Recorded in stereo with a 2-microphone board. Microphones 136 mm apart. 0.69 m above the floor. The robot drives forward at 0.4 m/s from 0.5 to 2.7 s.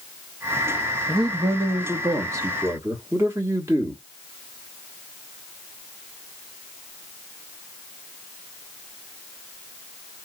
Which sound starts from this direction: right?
A man speaking, at 1.1 s.